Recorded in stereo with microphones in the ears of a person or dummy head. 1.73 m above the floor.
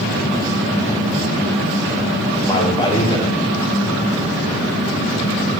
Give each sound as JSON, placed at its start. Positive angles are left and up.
{"t": 2.4, "sound": "a man speaking", "side_deg": 25, "distance_m": 1.1}